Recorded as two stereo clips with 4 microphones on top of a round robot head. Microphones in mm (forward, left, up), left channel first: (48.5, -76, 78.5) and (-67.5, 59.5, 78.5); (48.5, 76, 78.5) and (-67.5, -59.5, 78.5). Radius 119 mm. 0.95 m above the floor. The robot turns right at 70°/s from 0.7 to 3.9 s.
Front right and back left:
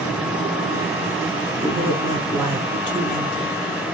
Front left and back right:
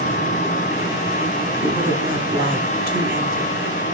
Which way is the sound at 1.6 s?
145° left.